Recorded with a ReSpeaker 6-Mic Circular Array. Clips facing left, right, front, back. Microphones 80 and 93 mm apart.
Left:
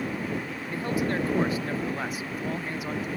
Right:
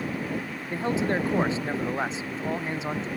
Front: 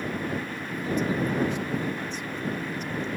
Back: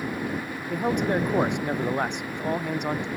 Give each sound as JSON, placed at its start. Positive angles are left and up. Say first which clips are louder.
{"t": 0.7, "sound": "a man speaking", "louder": "right 2 dB, back 4 dB", "azimuth_deg": -155}